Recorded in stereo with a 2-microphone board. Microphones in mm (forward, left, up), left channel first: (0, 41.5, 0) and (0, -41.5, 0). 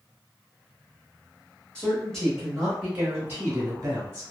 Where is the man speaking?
10° left (ahead or behind), 1.1 m; by 4.2 s 35° right (ahead or behind), 1.0 m.